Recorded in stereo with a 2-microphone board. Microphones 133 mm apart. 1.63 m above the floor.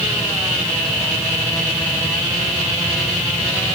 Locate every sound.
Only background noise.